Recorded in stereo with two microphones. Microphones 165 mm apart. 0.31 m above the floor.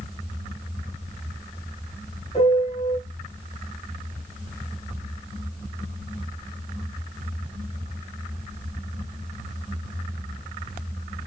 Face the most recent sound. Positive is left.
turn(degrees=35)  # may be behind; listen again after turning